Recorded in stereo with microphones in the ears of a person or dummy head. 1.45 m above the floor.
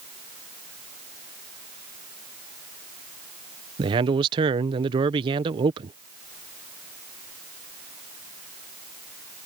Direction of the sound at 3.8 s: 25° right (ahead or behind).